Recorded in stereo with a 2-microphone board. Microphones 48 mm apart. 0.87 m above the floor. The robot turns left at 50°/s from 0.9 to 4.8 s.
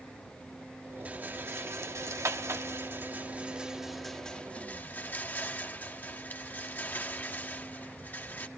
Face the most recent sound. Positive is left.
turn(degrees=40)  # may be behind; listen again after turning